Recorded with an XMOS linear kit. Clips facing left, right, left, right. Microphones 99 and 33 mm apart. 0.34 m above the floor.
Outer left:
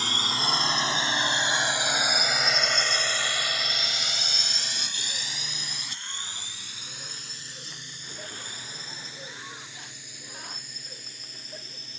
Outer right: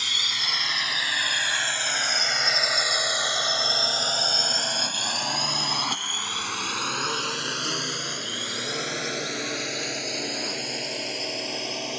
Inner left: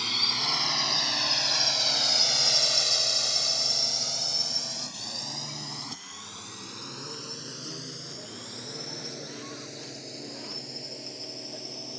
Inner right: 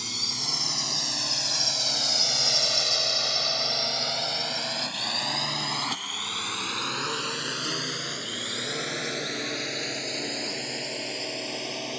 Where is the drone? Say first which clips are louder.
Outer left 5 dB, inner left 4 dB; 35° left (ahead or behind); by 12.0 s 70° right (ahead or behind).